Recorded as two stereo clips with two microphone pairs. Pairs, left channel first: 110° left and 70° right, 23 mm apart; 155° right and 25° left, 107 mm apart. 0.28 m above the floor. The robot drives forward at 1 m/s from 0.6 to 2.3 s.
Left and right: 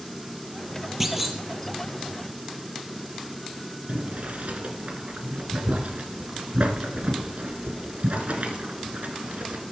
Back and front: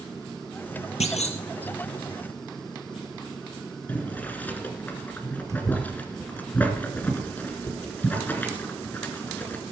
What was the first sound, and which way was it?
A clunk, 150° right.